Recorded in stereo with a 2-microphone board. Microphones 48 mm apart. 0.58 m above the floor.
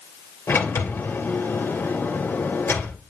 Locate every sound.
0.5 s a sliding door: 60° left (ahead or behind), 2 m